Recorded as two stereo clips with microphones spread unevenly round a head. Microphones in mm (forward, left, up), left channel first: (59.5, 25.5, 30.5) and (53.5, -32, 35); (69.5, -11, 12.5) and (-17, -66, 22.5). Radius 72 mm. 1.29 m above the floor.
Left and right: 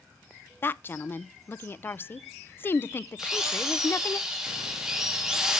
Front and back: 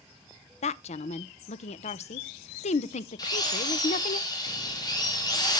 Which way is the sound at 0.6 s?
30° left.